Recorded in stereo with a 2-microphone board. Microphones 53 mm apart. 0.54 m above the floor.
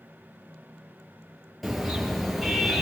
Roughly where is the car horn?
Centre.